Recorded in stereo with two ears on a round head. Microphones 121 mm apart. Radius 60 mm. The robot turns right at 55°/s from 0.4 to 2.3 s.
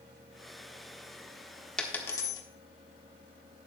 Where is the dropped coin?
5° left (ahead or behind), 1.4 m; by 2.4 s 30° left (ahead or behind), 1.4 m.